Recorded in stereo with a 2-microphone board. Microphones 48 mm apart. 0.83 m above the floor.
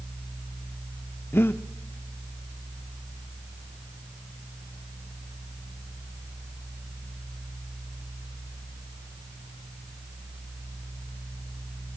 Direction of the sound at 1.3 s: 55° left (ahead or behind).